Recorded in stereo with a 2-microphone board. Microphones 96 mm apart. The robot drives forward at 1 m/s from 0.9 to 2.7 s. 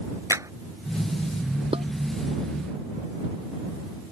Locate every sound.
0.3 s a clap: 35° right (ahead or behind)
1.7 s dishes clattering: 75° right (ahead or behind)